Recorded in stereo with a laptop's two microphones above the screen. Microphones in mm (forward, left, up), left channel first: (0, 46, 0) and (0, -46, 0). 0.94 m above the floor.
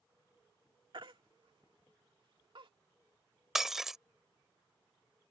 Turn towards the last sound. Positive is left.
turn(degrees=-5)  # may be behind; listen again after turning